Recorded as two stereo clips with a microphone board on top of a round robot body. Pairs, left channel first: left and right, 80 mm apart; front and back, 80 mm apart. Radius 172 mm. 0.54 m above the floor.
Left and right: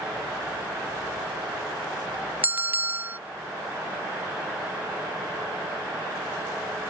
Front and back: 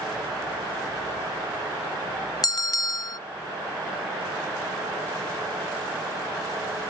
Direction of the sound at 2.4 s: 30° right.